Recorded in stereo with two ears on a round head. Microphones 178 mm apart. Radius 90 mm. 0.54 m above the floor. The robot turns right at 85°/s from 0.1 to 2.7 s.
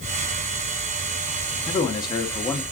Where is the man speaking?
20° left (ahead or behind), 0.6 m; by 2.6 s 5° left (ahead or behind), 0.6 m.